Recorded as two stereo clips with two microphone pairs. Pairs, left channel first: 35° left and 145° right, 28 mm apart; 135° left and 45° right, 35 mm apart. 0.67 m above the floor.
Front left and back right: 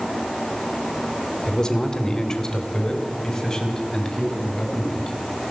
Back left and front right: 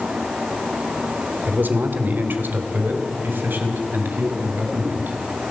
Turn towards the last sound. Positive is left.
turn(degrees=-35)